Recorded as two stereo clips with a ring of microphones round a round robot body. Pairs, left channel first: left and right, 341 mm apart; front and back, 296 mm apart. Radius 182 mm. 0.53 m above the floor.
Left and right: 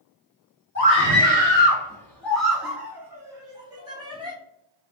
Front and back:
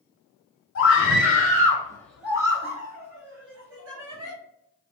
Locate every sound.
0.8 s a scream: 20° left, 1.1 m; by 4.3 s 165° right, 1.4 m